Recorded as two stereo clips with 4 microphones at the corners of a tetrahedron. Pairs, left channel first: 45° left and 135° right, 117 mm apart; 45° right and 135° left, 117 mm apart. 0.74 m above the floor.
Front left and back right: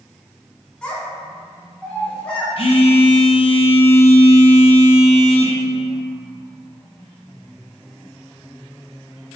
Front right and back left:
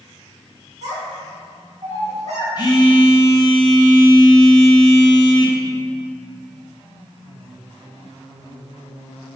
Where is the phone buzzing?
10° left, 0.5 m.